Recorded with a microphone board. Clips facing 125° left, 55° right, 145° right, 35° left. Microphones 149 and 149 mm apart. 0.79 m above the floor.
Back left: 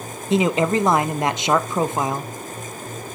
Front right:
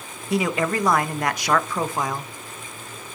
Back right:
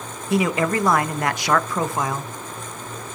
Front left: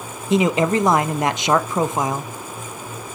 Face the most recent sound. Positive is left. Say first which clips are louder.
# back left 4 dB, front left 3 dB
turn(degrees=80)